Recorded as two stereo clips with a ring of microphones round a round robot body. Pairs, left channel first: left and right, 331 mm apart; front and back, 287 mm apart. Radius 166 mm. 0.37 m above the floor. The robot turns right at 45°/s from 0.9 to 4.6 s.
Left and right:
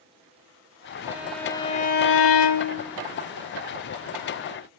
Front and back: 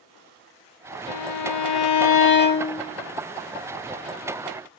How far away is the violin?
About 0.7 m.